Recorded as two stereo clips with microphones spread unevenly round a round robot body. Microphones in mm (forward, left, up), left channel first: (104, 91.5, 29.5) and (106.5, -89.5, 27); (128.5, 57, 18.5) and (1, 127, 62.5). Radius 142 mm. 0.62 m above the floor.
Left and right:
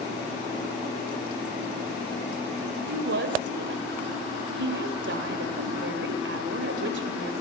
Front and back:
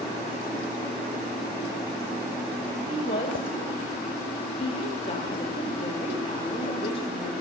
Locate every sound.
2.9 s a woman speaking: 85° right, 2.5 m